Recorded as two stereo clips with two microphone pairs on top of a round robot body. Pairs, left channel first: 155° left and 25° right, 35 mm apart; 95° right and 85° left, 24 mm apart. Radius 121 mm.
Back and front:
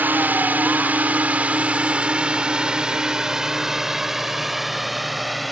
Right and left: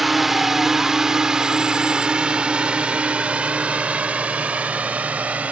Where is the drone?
Straight ahead; by 5.5 s 65° left.